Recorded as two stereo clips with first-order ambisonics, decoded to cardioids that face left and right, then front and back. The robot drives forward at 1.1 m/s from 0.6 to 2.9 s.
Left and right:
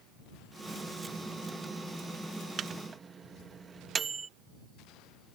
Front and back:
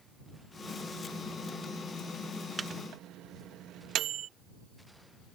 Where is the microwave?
115° right; by 4.3 s 155° right.